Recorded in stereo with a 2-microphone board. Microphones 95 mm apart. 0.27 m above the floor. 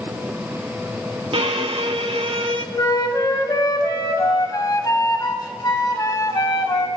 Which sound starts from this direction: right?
A violin, at 1.3 s.